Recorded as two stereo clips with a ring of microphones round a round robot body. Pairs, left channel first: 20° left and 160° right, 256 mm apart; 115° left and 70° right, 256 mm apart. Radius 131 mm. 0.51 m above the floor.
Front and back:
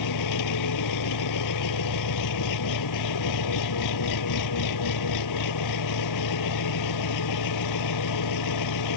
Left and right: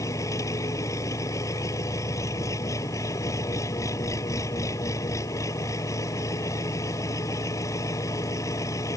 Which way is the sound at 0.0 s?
35° left.